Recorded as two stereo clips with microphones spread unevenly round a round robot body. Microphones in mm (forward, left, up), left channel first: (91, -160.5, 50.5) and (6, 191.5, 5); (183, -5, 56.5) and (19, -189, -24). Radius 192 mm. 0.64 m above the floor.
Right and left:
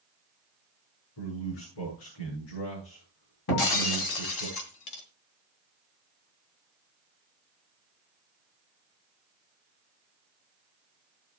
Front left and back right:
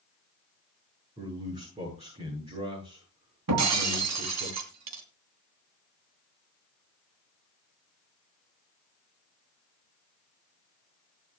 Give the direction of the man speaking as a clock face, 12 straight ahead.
2 o'clock.